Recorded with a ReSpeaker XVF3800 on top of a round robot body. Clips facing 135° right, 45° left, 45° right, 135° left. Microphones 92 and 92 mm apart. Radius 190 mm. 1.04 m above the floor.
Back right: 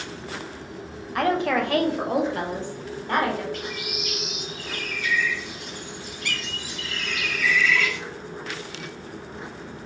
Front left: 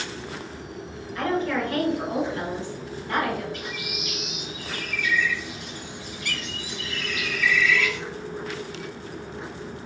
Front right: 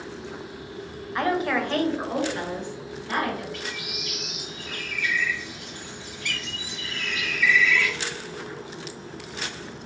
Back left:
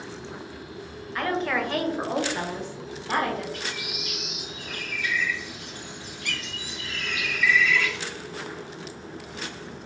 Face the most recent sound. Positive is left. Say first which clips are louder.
# back right 2 dB, back left 1 dB
turn(degrees=-160)